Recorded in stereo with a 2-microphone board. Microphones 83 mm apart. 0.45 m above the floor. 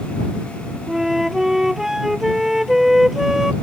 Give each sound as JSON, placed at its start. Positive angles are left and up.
{"t": 0.9, "sound": "a flute", "side_deg": -5}